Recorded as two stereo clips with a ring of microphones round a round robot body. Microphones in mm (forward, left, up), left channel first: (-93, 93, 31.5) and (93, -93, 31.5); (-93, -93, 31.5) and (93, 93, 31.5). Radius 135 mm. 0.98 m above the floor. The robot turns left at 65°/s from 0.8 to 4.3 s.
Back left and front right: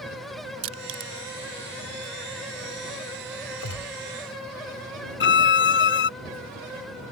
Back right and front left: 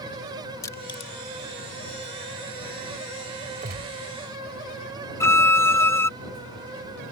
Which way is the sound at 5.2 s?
150° left.